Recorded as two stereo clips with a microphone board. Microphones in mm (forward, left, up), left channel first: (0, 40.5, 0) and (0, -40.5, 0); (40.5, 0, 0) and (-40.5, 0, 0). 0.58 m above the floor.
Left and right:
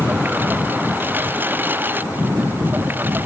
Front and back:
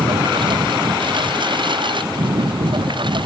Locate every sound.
0.0 s a lawn mower: 160° right